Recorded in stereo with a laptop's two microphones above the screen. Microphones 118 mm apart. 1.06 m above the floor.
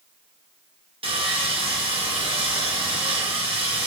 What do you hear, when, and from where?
1.0 s sawing: 50° right (ahead or behind), 0.7 m